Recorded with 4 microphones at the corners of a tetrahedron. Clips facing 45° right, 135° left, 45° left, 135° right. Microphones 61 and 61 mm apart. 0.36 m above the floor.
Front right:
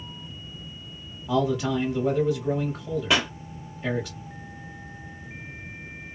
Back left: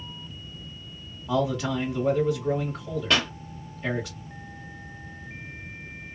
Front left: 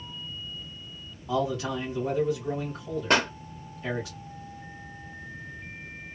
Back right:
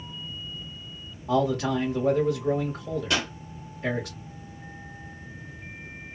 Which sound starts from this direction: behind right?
A man speaking, at 1.3 s.